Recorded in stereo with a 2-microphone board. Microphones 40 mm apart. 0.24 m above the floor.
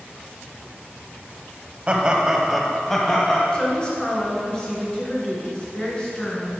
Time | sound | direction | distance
1.9 | laughter | 30° right (ahead or behind) | 1.1 m
3.5 | a woman speaking | 20° left (ahead or behind) | 2 m